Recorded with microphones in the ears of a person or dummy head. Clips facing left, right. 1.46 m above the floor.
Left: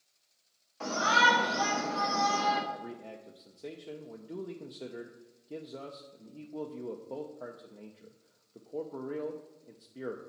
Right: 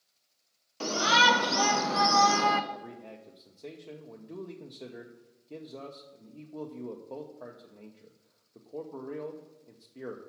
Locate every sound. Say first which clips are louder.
0.8 s a shout: right 2 dB; 40° right (ahead or behind), 1.3 m; by 2.6 s 55° right (ahead or behind), 0.8 m
2.7 s a man speaking: left 1 dB; 10° left (ahead or behind), 0.6 m